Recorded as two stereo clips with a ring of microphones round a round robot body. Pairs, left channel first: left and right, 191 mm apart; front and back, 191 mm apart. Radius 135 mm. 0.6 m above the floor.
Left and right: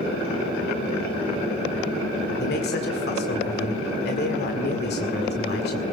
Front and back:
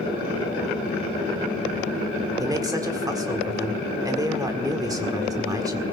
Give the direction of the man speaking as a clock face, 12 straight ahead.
8 o'clock.